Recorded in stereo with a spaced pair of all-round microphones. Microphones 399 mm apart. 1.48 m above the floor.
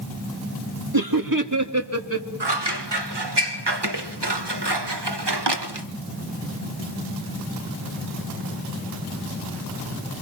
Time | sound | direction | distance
0.9 | laughter | 60° right (ahead or behind) | 1.9 m
2.4 | scissors | 85° right | 1.5 m